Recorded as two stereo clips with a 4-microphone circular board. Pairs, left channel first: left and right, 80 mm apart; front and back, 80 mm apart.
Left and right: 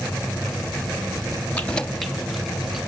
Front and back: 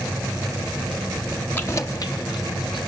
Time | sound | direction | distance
1.6 | keys jangling | 35° left | 0.9 m